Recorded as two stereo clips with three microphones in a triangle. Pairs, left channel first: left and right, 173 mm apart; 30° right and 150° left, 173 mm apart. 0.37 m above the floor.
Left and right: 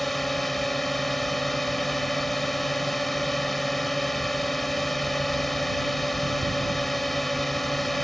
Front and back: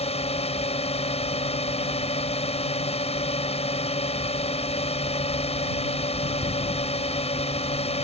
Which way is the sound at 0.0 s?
Straight ahead.